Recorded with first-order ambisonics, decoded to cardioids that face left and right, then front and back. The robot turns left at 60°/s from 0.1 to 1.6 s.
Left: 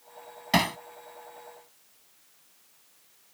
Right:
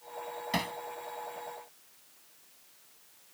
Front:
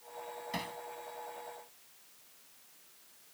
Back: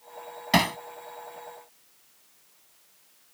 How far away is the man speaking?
I don't hear a man speaking.